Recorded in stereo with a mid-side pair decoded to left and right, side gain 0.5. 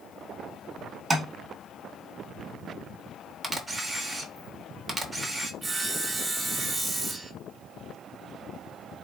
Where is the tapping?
25° right, 1.2 m.